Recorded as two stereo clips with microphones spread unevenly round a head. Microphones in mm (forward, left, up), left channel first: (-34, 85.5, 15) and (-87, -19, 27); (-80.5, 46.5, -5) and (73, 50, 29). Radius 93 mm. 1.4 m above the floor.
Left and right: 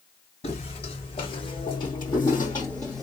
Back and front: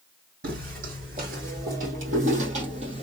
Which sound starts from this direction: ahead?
Footsteps, at 0.4 s.